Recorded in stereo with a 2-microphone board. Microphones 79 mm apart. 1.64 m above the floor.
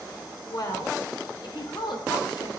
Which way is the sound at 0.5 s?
55° left (ahead or behind).